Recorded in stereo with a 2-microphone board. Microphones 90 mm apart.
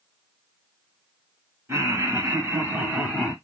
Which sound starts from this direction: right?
Laughter, at 1.7 s.